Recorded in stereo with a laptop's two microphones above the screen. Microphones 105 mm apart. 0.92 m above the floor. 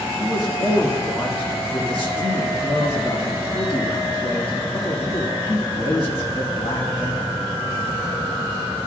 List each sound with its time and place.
0.2 s a man speaking: 60° left (ahead or behind), 1.6 m